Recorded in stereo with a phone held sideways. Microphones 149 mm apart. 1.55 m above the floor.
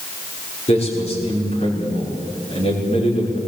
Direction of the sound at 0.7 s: 45° left (ahead or behind).